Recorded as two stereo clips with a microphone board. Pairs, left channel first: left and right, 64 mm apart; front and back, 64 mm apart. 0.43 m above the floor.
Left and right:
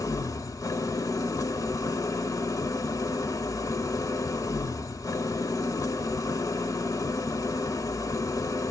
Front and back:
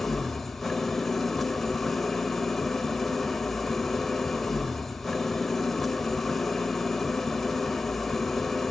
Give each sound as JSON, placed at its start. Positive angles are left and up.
{"t": 0.0, "sound": "an engine running", "azimuth_deg": 85, "distance_m": 0.8}